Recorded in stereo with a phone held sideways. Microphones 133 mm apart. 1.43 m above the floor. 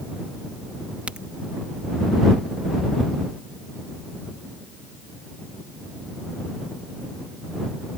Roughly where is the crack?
Centre.